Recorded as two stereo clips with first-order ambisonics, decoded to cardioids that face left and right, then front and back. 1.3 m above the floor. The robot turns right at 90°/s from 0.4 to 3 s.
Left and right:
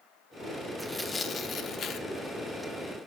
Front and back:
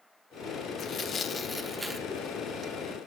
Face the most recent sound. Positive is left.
turn(degrees=-160)